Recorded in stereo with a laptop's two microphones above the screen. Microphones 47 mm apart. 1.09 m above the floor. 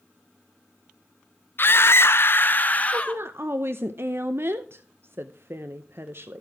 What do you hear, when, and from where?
1.6 s a scream: 45° left (ahead or behind), 0.7 m; by 3.2 s 20° left (ahead or behind), 1.3 m
2.9 s a woman speaking: 55° right (ahead or behind), 0.7 m